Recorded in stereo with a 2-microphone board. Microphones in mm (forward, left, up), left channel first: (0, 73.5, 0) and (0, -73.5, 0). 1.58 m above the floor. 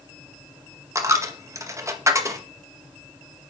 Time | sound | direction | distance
0.9 | a dropped coin | 20° right (ahead or behind) | 0.8 m